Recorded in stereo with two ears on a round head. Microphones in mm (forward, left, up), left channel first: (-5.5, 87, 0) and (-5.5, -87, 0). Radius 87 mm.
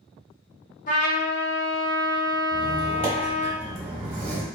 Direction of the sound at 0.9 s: 40° left (ahead or behind).